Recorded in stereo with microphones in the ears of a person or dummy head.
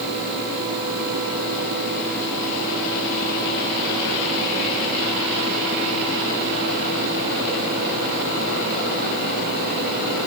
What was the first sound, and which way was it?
Only background noise.